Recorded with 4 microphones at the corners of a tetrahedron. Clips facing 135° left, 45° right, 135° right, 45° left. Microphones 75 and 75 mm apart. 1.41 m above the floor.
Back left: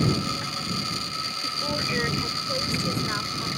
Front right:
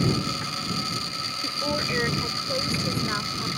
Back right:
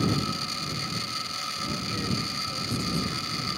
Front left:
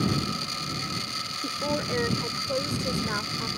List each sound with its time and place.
1.4 s a woman speaking: 30° left; by 3.5 s 45° left